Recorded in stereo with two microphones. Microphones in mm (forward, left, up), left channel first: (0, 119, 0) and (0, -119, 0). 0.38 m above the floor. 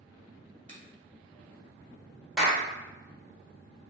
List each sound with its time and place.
0.7 s a finger snap: 30° right (ahead or behind), 0.9 m
2.4 s a clap: centre (ahead or behind), 1.0 m